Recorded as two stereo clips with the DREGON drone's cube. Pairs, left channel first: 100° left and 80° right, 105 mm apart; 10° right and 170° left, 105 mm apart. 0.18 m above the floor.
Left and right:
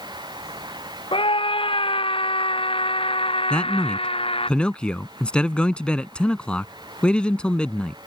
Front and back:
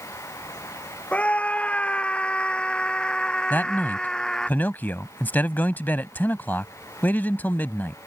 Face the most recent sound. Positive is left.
turn(degrees=35)